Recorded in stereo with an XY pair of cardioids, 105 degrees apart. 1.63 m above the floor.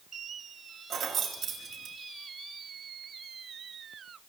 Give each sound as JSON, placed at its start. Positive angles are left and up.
{"t": 0.9, "sound": "keys jangling", "azimuth_deg": -60, "distance_m": 2.0}